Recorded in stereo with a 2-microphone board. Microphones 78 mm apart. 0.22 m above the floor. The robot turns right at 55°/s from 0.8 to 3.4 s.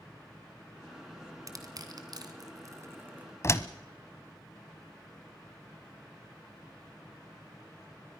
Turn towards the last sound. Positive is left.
turn(degrees=35)  # may be behind; listen again after turning